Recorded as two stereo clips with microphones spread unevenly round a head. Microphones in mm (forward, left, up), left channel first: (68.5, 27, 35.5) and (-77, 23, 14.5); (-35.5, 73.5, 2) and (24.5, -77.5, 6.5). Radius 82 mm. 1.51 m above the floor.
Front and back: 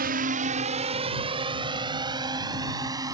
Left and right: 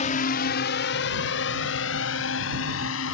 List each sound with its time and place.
0.0 s a drone: 160° left; by 3.1 s 115° left